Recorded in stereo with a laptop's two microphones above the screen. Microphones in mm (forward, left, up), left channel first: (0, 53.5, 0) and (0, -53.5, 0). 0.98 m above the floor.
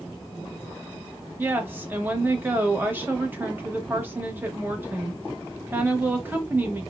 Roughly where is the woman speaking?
Centre.